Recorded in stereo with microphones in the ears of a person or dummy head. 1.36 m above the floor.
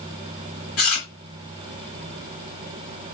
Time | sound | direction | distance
0.8 | chewing | 40° left (ahead or behind) | 1.6 m